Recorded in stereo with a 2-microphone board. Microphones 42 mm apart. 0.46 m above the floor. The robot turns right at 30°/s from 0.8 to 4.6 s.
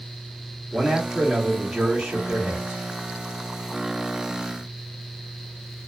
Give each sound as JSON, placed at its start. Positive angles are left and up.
{"t": 0.7, "sound": "a man speaking", "azimuth_deg": 160, "distance_m": 1.1}